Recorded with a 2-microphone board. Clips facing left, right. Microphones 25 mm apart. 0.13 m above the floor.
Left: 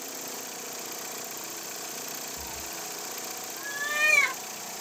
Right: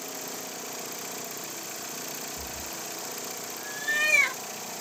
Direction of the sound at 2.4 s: 55° left (ahead or behind).